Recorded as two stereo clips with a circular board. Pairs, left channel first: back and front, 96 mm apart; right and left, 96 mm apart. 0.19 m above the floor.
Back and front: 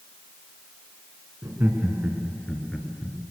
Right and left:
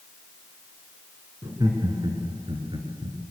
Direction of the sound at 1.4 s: 55° left.